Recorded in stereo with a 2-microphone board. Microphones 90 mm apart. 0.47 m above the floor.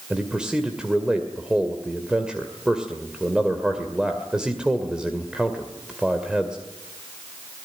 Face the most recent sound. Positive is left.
turn(degrees=-10)  # may be behind; listen again after turning